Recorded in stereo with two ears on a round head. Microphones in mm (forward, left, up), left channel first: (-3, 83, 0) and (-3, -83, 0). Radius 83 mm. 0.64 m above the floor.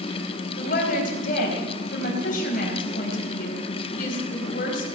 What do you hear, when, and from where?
0.6 s a woman speaking: 45° left (ahead or behind), 4 m